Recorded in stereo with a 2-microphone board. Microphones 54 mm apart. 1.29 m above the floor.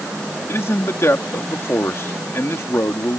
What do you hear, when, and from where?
0.5 s a man speaking: 55° left (ahead or behind)